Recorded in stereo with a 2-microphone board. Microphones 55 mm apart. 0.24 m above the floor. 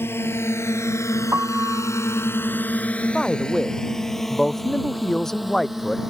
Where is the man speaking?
5° left (ahead or behind).